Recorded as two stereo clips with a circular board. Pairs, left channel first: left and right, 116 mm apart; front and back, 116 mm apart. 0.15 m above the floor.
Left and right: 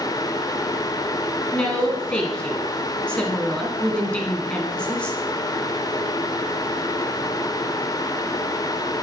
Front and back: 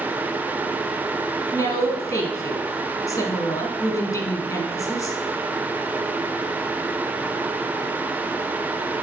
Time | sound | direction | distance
1.5 | a woman speaking | 15° left | 1.1 m